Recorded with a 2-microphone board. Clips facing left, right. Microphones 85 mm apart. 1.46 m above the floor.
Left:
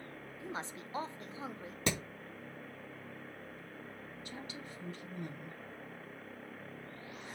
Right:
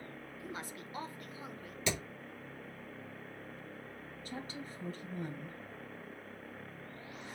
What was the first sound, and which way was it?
A woman speaking, 25° left (ahead or behind).